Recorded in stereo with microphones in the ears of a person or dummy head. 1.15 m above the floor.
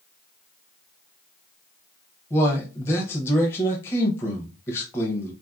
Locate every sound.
2.3 s a man speaking: 15° left (ahead or behind), 0.6 m